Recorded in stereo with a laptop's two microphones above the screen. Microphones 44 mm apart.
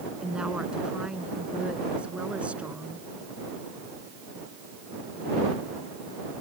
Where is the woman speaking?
20° right (ahead or behind); by 3.1 s 30° right (ahead or behind).